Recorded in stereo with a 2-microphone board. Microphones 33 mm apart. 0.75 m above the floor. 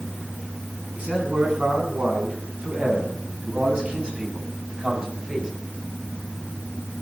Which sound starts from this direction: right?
A man speaking, at 0.9 s.